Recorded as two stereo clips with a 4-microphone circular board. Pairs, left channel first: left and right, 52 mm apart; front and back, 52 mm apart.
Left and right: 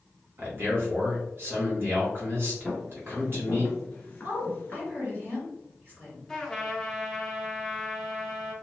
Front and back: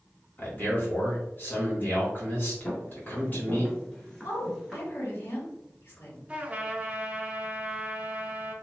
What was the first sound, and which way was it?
A man speaking, 50° right.